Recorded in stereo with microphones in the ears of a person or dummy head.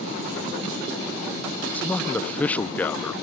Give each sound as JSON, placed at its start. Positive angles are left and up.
{"t": 1.6, "sound": "a man speaking", "side_deg": 10}